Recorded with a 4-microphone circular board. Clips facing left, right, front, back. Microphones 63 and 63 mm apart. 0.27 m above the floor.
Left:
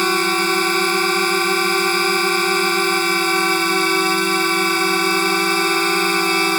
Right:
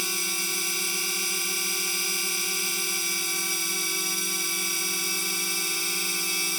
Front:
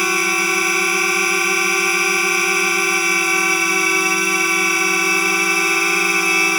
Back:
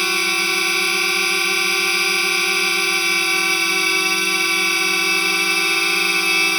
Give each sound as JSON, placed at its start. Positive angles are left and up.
{"t": 0.0, "sound": "a drone", "azimuth_deg": 75}